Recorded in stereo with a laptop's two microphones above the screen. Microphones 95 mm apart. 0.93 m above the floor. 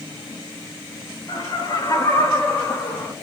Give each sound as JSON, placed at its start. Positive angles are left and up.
{"t": 1.3, "sound": "laughter", "side_deg": 45, "distance_m": 1.8}